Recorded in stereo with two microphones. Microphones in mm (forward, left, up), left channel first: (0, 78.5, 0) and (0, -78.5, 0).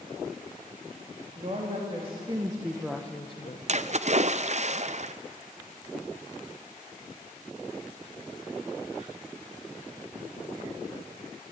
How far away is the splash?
About 0.5 m.